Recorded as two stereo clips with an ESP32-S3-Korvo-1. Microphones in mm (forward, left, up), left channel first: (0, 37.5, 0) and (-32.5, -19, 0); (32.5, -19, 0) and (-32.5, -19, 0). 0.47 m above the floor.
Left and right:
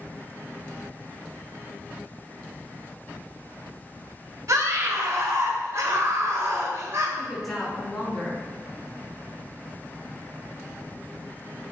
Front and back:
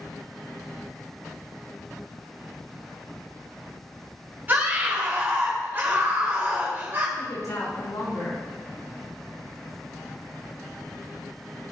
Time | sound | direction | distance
4.5 | a scream | 130° right | 1.8 m
7.2 | a woman speaking | 30° right | 5.5 m